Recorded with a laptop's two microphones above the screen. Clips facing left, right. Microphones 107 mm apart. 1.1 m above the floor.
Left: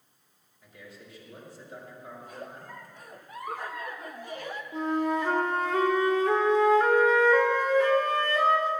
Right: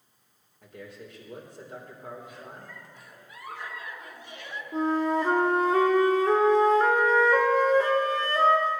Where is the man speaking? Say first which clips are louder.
Right 5 dB; 60° right (ahead or behind), 3 m.